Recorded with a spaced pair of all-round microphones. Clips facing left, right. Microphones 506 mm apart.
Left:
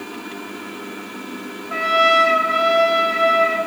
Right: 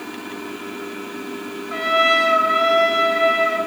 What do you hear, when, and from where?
1.7 s a trumpet: 45° left (ahead or behind), 1.8 m